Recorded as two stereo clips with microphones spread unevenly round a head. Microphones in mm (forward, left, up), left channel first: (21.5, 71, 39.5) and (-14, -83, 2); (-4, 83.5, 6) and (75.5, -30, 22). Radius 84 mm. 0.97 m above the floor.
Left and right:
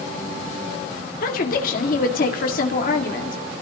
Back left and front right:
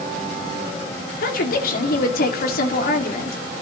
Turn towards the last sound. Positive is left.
turn(degrees=120)